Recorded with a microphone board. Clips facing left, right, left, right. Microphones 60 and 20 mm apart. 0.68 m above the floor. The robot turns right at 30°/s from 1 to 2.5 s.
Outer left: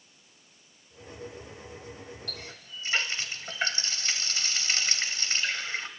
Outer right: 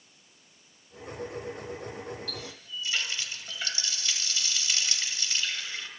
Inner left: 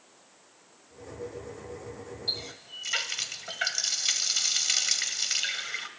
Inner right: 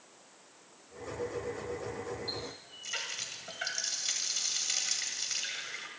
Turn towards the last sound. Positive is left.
turn(degrees=40)  # may be behind; listen again after turning